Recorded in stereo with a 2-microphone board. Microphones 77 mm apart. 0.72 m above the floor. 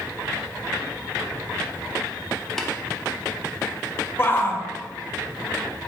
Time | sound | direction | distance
2.6 | tapping | 5° left (ahead or behind) | 0.9 m
4.2 | a shout | 30° left (ahead or behind) | 0.9 m